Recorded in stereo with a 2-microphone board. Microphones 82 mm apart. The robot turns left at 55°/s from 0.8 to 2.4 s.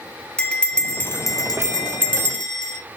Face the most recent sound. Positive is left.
turn(degrees=80)